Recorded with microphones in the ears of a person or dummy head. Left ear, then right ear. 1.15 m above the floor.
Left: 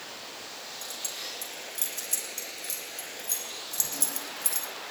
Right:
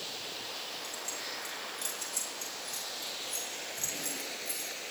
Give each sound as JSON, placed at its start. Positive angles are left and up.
{"t": 0.8, "sound": "keys jangling", "side_deg": 60, "distance_m": 7.0}